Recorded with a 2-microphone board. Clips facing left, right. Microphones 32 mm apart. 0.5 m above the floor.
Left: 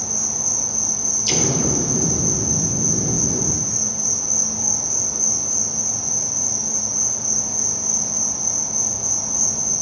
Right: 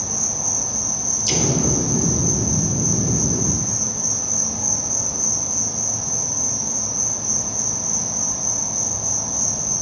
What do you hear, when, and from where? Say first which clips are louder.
0.0 s an insect: right 1 dB; 50° right (ahead or behind), 3.5 m
1.3 s an explosion: even; 15° left (ahead or behind), 0.7 m